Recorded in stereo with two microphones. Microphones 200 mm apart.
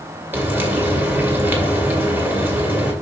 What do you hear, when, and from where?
0.3 s frying: 10° right (ahead or behind), 2.5 m